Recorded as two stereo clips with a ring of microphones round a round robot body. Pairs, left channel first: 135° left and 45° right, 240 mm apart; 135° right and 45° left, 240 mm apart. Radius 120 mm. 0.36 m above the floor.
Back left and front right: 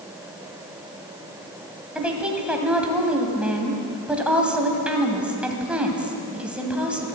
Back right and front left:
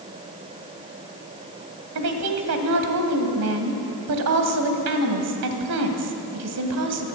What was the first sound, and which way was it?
A woman speaking, 40° left.